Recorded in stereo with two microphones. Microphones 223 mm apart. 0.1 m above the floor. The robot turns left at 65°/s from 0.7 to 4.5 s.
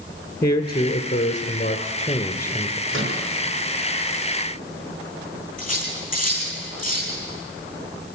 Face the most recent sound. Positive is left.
turn(degrees=35)  # may be behind; listen again after turning